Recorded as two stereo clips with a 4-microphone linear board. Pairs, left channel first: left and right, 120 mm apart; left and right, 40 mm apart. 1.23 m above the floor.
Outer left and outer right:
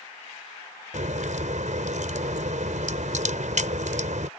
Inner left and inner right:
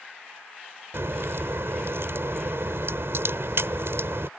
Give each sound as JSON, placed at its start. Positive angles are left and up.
{"t": 0.9, "sound": "a crack", "side_deg": -80}